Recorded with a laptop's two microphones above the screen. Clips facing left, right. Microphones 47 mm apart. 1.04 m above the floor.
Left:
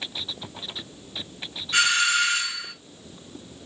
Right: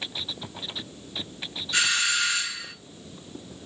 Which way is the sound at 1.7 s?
35° left (ahead or behind).